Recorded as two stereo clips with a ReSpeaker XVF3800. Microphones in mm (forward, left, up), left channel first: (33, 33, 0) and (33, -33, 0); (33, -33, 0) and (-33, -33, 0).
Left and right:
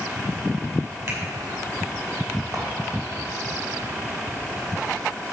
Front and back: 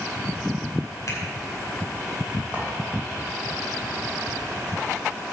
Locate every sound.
1.1 s a finger snap: 45° right, 4 m
2.5 s a clink: 110° right, 3 m